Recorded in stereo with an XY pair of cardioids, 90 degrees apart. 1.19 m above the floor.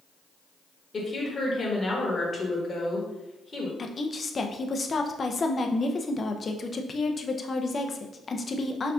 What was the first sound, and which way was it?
A woman speaking, 35° left.